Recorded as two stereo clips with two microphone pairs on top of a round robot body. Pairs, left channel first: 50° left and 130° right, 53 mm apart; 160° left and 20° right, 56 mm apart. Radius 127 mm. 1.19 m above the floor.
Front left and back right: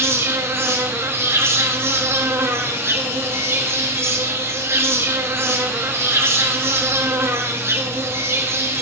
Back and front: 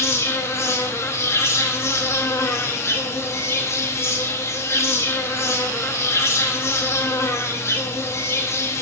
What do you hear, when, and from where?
0.0 s an insect: 165° right, 0.9 m